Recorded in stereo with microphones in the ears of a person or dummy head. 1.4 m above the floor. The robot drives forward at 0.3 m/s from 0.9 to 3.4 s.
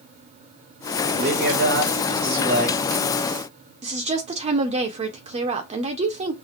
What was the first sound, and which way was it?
A man speaking, 70° right (ahead or behind).